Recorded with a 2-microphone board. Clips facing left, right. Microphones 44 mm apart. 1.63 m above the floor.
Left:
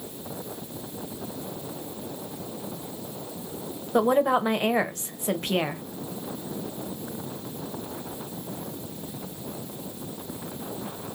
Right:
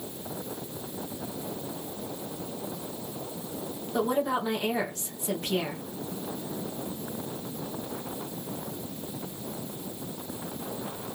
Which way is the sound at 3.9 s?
45° left (ahead or behind).